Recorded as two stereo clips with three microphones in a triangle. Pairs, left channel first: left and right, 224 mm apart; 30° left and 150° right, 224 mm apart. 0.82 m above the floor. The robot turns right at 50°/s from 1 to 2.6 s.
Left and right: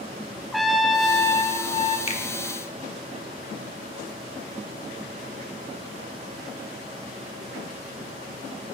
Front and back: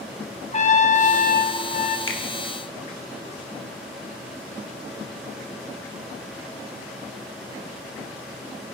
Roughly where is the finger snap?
Ahead left.